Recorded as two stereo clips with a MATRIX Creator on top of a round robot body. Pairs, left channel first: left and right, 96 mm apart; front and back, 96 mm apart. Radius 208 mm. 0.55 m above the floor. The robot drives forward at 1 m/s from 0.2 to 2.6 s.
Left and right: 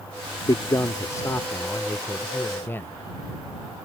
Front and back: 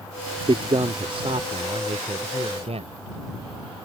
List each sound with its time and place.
0.5 s a man speaking: 140° left; by 2.9 s 160° left